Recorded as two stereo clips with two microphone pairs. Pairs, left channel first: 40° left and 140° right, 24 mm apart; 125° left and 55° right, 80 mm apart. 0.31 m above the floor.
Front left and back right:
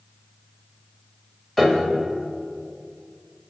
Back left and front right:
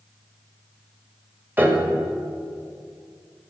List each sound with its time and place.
1.6 s a piano: 35° right, 1.5 m